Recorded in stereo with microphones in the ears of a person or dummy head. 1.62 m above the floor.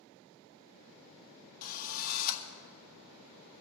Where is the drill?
50° left (ahead or behind), 1.1 m.